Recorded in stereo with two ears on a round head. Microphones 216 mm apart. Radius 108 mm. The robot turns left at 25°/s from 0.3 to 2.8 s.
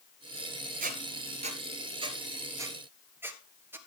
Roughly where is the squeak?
Right.